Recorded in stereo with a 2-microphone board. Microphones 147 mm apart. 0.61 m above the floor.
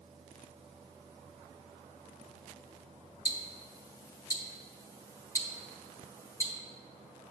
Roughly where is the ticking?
Left.